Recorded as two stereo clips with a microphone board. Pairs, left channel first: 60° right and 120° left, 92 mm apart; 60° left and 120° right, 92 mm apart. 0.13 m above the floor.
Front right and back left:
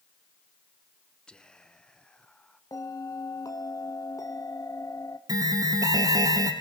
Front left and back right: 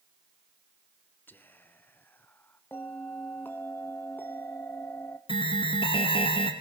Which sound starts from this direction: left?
An alarm, at 5.3 s.